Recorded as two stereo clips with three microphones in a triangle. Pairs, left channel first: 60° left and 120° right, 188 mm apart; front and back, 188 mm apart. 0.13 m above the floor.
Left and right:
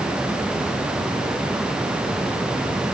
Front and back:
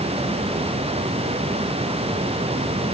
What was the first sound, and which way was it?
Only background noise.